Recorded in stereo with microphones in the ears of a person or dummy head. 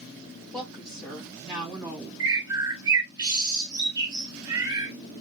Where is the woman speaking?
5° left (ahead or behind), 2.5 m; by 2.1 s 15° right (ahead or behind), 1.9 m.